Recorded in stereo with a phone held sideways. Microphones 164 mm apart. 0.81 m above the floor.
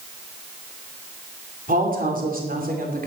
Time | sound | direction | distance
1.7 | a woman speaking | 55° right (ahead or behind) | 3 m